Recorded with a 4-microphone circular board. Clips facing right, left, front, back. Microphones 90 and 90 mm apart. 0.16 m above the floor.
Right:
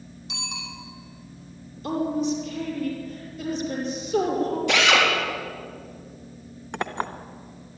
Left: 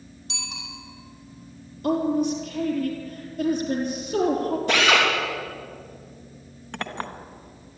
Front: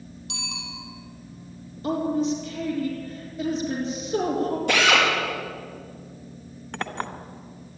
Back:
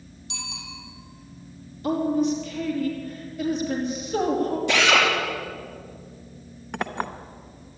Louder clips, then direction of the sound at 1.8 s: Left 3 dB, back 2 dB; 60° left.